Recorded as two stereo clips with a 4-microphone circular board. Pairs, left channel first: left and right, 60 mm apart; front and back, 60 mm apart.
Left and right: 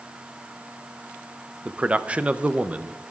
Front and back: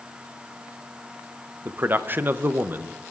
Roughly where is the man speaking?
Behind right.